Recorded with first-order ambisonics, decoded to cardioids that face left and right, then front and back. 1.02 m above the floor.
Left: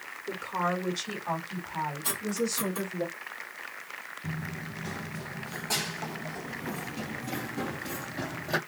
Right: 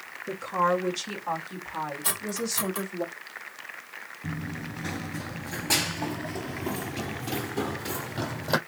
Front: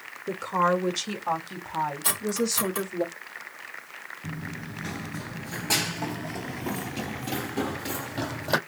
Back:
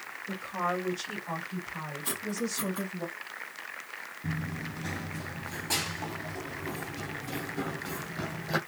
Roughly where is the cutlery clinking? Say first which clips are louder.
Even, front 7 dB; ahead right.